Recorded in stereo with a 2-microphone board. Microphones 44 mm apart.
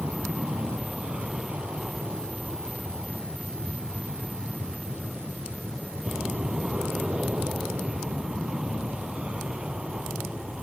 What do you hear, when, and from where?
0.0 s an aircraft: 25° right (ahead or behind)